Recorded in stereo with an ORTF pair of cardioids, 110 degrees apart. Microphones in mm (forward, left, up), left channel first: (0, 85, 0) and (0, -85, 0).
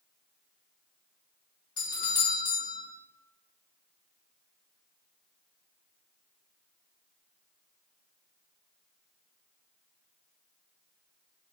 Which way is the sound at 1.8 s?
25° left.